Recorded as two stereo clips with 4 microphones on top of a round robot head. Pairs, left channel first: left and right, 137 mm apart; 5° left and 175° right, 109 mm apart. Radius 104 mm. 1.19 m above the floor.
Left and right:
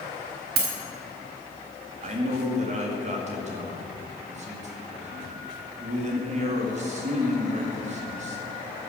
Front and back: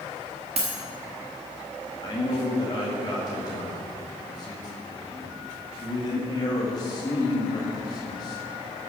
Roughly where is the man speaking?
Ahead right.